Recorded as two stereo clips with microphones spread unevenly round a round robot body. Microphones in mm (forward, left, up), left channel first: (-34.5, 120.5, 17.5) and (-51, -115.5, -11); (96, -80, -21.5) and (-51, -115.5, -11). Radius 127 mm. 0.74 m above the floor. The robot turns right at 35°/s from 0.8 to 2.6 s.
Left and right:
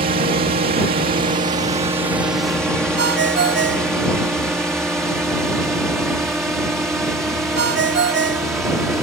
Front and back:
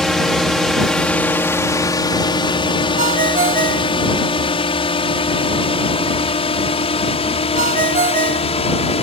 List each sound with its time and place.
0.0 s a drone: 70° right; by 9.0 s 10° right
3.0 s a ringtone: 140° right